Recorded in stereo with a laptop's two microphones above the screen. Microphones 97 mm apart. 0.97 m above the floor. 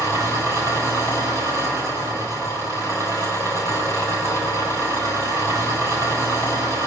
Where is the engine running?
35° right (ahead or behind), 4 m.